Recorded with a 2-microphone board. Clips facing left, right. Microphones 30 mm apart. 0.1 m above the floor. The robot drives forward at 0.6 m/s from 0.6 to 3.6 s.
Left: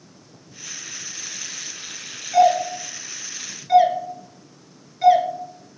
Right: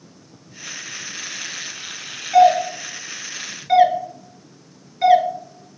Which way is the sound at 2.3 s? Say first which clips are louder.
Right 3 dB; 20° right (ahead or behind).